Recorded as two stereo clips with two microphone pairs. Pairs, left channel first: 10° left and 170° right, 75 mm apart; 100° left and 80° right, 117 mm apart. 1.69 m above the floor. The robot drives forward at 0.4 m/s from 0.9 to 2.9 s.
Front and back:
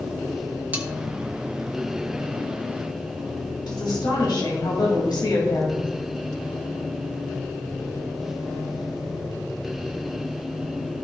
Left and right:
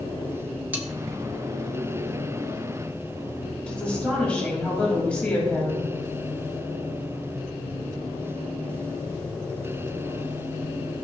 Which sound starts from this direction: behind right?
Cutlery clinking, at 0.7 s.